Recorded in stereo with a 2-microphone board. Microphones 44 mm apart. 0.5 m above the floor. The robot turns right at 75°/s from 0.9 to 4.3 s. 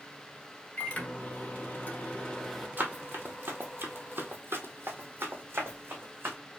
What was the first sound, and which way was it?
A microwave, 45° left.